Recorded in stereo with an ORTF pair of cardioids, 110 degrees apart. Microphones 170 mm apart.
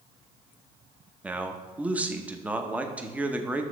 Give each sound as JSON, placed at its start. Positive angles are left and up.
{"t": 1.2, "sound": "a man speaking", "azimuth_deg": -10, "distance_m": 0.8}